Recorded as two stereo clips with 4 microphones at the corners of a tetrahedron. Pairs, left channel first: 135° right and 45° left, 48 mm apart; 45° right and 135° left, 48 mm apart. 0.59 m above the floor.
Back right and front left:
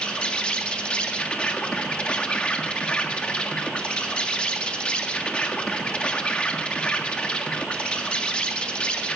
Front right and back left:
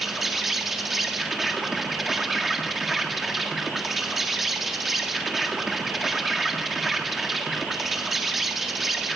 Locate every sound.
0.0 s an insect: 145° right, 1.6 m